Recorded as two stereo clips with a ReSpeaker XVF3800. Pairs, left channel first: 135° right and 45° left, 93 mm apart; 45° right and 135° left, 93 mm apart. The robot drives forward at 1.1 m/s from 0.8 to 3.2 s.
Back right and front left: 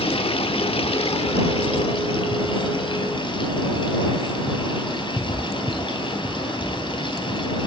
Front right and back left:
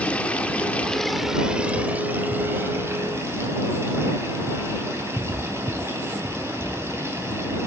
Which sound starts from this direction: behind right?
Running water, at 0.0 s.